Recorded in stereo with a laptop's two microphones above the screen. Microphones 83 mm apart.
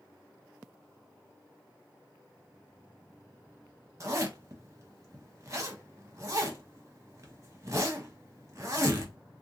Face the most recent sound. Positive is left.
turn(degrees=-35)  # may be behind; listen again after turning